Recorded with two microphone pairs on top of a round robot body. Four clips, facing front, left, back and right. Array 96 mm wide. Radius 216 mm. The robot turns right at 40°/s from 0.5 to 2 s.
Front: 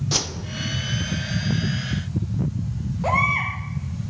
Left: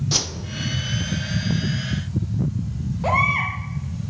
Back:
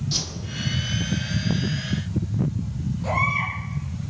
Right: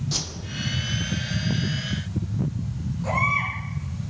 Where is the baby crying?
45° left, 6.5 m.